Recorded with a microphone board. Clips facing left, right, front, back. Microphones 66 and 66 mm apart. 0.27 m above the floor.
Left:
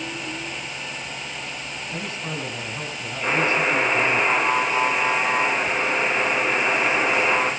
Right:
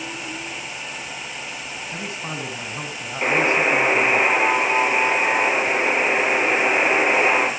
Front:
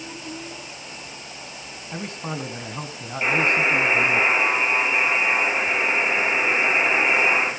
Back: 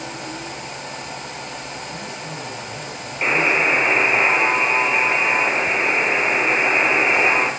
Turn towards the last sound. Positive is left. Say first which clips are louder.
# right 2 dB, back 2 dB
turn(degrees=-120)